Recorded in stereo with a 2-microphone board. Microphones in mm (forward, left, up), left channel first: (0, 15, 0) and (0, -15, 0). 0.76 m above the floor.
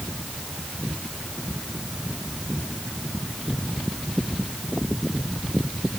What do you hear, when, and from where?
Only background noise.